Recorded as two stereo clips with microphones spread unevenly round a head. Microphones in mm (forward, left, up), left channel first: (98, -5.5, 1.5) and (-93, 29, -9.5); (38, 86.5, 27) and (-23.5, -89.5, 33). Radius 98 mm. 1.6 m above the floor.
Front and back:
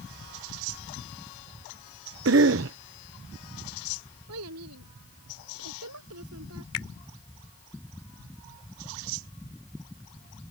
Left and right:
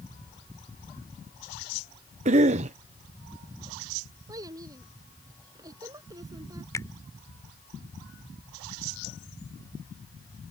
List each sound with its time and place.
2.2 s a cough: 165° right
4.3 s a child speaking: straight behind
6.7 s a finger snap: 5° right